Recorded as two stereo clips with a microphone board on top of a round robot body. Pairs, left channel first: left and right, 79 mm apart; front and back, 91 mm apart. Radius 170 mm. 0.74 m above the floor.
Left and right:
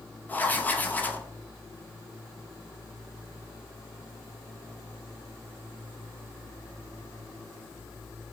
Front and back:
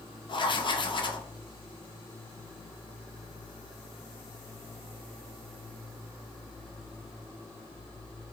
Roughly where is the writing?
Ahead left.